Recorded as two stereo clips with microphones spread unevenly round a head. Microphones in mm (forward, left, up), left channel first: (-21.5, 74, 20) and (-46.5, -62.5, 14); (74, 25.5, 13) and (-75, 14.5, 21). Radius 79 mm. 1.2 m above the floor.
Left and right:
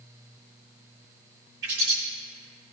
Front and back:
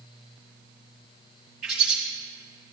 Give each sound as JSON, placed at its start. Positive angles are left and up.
{"t": 1.6, "sound": "a bird", "azimuth_deg": -90, "distance_m": 1.7}